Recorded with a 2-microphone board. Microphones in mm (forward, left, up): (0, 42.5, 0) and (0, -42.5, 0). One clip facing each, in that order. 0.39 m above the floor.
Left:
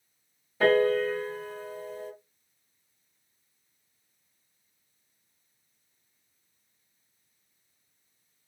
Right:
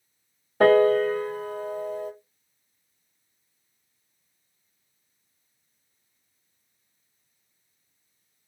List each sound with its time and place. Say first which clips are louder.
0.6 s a piano: right 5 dB; 55° right (ahead or behind), 1.0 m